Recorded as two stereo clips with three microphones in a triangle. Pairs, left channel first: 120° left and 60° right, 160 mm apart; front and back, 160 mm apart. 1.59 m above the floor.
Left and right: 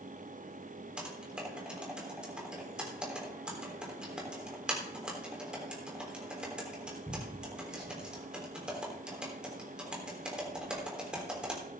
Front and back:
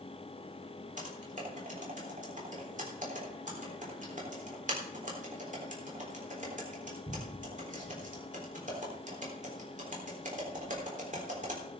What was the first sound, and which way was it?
Typing on a keyboard, 145° right.